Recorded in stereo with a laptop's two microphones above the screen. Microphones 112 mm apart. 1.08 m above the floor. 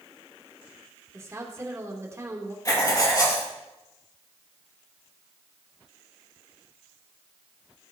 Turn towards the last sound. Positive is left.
turn(degrees=30)  # may be behind; listen again after turning